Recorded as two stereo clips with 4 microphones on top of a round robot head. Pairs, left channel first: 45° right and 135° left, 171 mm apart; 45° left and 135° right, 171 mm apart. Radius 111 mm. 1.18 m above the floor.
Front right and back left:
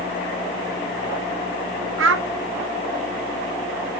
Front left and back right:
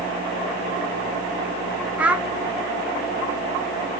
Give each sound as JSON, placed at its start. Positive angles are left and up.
{"t": 2.0, "sound": "a child speaking", "azimuth_deg": 140, "distance_m": 0.7}